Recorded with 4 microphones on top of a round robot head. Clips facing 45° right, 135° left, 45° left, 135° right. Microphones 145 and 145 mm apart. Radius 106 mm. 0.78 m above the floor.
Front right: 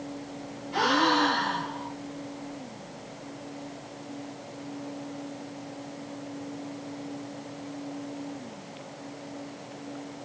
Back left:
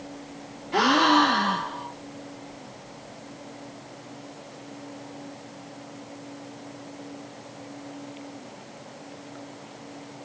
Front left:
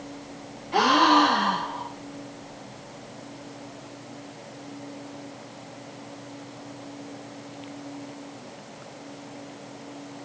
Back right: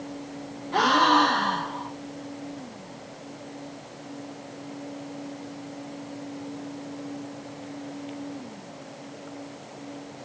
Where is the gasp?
125° left, 1.8 m.